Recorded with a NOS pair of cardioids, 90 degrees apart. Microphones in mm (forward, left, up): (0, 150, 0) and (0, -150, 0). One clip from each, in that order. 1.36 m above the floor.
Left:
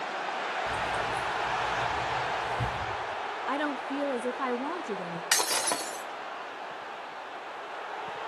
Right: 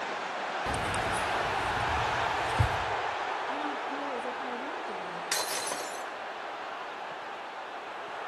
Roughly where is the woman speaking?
Ahead left.